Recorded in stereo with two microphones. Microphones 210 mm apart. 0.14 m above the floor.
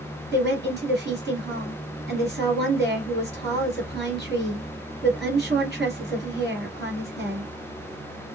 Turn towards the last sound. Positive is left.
turn(degrees=-55)  # may be behind; listen again after turning